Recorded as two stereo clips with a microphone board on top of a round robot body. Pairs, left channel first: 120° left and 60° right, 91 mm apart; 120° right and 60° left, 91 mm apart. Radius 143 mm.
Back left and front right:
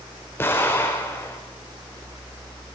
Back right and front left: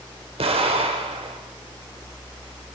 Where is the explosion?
55° left, 4.5 m.